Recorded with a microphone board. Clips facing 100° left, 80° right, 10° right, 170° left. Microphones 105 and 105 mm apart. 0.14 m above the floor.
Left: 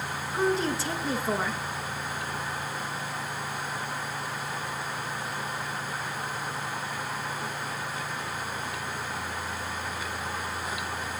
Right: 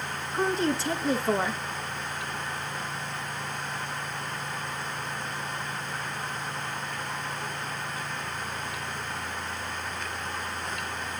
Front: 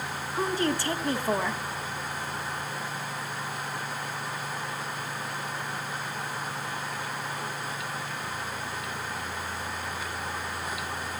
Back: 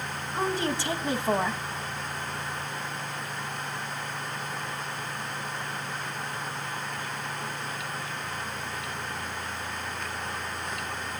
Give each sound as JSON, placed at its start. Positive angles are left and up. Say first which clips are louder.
{"t": 0.3, "sound": "a woman speaking", "louder": "even, front 1 dB", "azimuth_deg": -175, "distance_m": 1.4}